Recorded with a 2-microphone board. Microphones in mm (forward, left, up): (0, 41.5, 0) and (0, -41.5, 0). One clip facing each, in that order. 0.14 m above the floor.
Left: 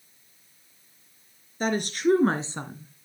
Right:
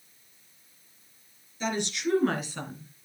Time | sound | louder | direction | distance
1.6 | a woman speaking | left 5 dB | 50° left (ahead or behind) | 2 m